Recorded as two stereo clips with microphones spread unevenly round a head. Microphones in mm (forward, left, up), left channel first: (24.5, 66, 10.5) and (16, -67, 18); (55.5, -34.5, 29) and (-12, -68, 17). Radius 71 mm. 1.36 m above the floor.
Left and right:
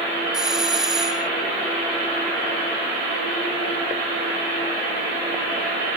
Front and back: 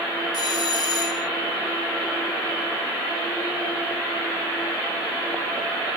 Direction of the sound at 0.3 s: 10° right.